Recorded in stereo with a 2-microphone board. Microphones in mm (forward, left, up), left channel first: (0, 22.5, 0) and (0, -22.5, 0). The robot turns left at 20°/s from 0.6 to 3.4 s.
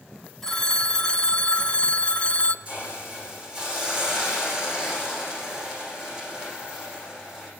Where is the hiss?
35° right (ahead or behind), 8.5 m; by 7.5 s 20° right (ahead or behind), 8.5 m.